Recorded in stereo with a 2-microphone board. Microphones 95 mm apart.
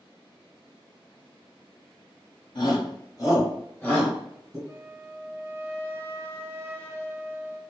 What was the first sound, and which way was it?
A shout, 50° left (ahead or behind).